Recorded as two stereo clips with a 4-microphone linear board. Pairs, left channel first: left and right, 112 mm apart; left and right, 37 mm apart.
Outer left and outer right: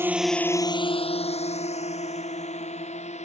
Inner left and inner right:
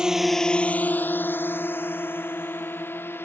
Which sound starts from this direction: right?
A drone, at 0.0 s.